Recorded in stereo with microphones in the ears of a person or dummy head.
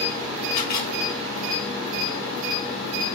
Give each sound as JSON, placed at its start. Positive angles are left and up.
{"t": 0.5, "sound": "a camera shutter", "side_deg": 50, "distance_m": 3.5}